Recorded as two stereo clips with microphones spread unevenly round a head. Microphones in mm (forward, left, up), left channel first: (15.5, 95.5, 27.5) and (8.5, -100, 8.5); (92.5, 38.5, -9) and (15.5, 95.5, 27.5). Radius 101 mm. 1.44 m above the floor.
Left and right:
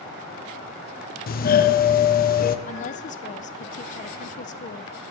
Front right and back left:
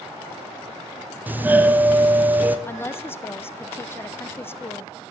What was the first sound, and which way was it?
A doorbell, 55° left.